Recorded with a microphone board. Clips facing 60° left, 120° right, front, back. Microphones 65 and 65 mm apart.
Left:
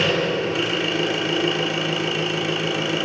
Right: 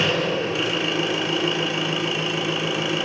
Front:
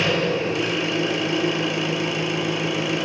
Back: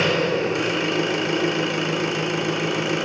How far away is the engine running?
About 2 m.